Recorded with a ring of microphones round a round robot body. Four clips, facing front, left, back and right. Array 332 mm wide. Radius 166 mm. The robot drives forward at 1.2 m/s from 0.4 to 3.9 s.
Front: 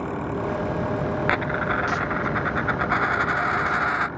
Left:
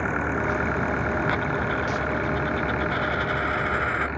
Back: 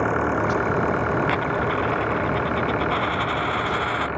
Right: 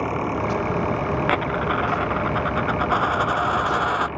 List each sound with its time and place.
0.0 s an engine running: 165° right; by 4.2 s 170° right
1.3 s a dropped coin: 70° right; by 4.1 s 85° right